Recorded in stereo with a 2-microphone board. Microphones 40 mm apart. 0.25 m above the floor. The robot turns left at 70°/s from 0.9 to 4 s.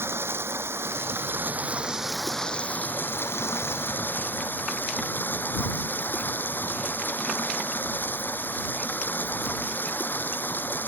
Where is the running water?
90° right; by 10.9 s 55° left.